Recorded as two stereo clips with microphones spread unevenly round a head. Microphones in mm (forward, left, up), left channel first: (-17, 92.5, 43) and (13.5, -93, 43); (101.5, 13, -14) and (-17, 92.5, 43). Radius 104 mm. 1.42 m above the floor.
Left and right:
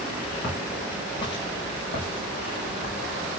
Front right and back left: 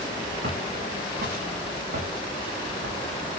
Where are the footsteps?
170° left, 9 m; by 3.4 s 150° left, 7.5 m.